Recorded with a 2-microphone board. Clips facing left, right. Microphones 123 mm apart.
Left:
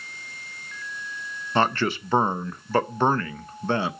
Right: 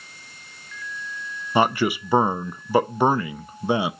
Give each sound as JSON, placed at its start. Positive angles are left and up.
{"t": 1.6, "sound": "a man speaking", "side_deg": -10, "distance_m": 0.6}